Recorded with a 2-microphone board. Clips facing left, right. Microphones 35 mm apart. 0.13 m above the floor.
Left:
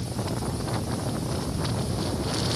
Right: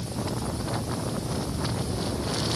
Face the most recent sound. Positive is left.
No sound to turn to.